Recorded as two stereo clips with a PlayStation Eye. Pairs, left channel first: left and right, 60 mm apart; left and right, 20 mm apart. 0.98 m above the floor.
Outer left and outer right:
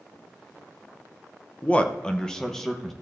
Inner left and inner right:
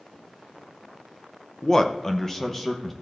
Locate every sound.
1.6 s a man speaking: 25° left (ahead or behind), 0.8 m; by 2.9 s 5° left (ahead or behind), 1.3 m